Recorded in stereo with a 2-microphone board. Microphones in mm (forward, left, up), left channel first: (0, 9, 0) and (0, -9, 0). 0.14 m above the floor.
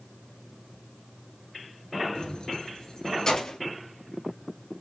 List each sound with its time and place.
2.1 s keys jangling: 55° left (ahead or behind), 1.6 m; by 3.6 s 40° left (ahead or behind), 2.5 m